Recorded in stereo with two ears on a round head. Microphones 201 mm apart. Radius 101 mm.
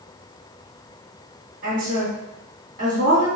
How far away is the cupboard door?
I don't hear a cupboard door.